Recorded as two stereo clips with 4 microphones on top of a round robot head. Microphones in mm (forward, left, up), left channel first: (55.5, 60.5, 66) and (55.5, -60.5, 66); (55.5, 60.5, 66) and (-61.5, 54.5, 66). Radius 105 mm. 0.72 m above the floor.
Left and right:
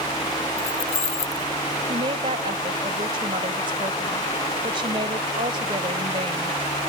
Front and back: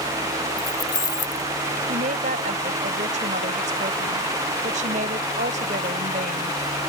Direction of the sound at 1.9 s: 145° right.